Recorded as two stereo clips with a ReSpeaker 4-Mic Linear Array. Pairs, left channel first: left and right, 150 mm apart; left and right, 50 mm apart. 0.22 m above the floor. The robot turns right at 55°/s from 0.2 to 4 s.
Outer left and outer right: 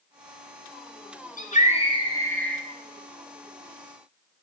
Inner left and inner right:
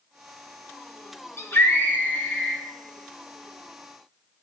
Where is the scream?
110° left, 2.5 m; by 2.6 s straight behind, 2.5 m.